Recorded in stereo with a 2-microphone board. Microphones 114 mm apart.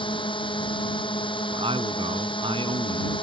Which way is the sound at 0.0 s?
45° left (ahead or behind).